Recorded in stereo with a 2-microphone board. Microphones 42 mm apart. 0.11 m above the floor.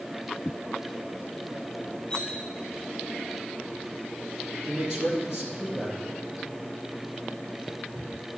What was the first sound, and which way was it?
Cutlery clinking, 25° left (ahead or behind).